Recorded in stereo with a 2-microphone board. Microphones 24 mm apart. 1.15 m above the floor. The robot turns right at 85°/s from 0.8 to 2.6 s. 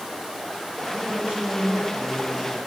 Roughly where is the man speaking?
Behind right.